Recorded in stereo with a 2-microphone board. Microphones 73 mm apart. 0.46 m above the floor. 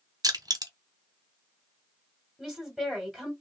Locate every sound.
0.2 s crushing: 65° right (ahead or behind), 1.1 m
2.4 s a woman speaking: centre (ahead or behind), 1.6 m